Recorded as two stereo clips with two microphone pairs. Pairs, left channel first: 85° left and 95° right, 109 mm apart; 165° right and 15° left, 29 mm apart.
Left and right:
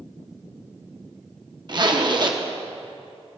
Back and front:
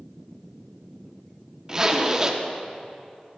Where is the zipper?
55° right, 0.8 m.